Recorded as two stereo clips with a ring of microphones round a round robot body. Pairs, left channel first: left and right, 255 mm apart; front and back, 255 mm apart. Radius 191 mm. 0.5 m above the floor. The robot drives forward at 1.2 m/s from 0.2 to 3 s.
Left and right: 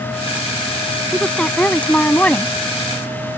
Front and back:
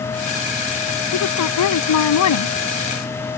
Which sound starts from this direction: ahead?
A woman speaking, at 1.1 s.